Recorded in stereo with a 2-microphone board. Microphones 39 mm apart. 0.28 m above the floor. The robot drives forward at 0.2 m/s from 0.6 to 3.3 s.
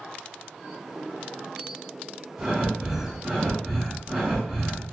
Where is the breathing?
15° right (ahead or behind), 1.7 m; by 4.9 s 10° right (ahead or behind), 1.7 m.